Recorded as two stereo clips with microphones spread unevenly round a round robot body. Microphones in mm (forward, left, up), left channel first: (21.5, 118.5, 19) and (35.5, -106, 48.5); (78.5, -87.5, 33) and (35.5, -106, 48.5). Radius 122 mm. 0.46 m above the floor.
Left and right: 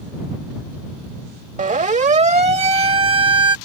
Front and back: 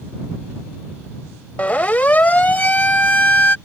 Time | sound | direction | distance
1.6 | a siren | 30° right | ?